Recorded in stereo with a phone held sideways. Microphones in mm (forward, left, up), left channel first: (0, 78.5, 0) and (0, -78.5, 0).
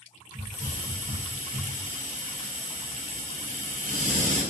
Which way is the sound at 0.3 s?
55° right (ahead or behind).